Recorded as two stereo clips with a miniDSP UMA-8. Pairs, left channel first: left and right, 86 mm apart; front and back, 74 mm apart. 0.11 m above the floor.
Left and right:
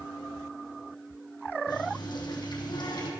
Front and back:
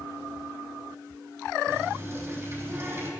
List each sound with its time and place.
1.7 s a running tap: 120° left, 3.5 m